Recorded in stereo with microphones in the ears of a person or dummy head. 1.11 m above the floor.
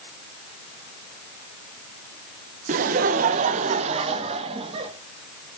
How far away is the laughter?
About 0.7 m.